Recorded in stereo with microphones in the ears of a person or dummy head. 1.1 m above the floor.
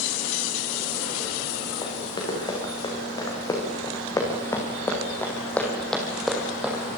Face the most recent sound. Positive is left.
turn(degrees=-10)  # may be behind; listen again after turning